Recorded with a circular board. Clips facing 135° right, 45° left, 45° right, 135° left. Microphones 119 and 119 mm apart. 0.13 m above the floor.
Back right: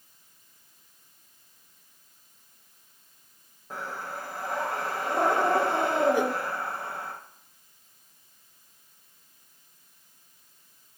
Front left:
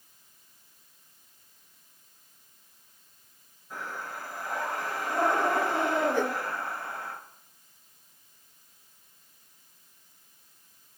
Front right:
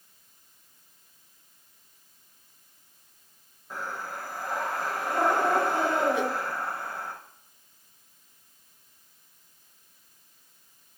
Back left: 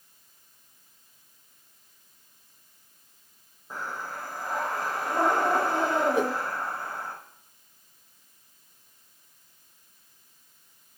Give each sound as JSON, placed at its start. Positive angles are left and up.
{"t": 3.7, "sound": "breathing", "azimuth_deg": -150, "distance_m": 5.0}
{"t": 6.1, "sound": "a whoosh", "azimuth_deg": 155, "distance_m": 0.6}